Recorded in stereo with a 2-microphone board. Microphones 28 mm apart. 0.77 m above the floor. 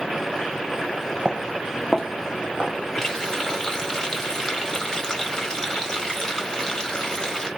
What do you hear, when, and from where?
1.2 s footsteps: 40° right (ahead or behind), 1.2 m; by 2.8 s 20° left (ahead or behind), 1.9 m
3.0 s a running tap: 15° left (ahead or behind), 1.7 m